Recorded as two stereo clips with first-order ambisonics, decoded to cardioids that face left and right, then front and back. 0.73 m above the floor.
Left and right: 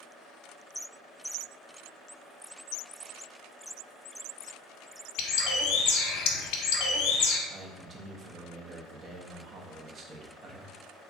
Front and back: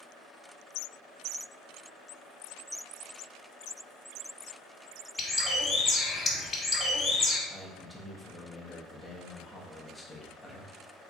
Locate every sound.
5.2 s a bird: 75° left, 0.8 m
7.5 s a man speaking: 90° right, 0.5 m